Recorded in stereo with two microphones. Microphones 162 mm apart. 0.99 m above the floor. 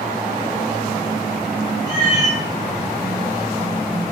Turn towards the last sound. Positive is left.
turn(degrees=-20)  # may be behind; listen again after turning